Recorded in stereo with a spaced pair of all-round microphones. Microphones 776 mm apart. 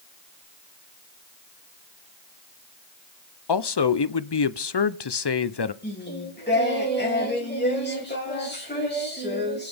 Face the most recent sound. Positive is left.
turn(degrees=15)  # may be behind; listen again after turning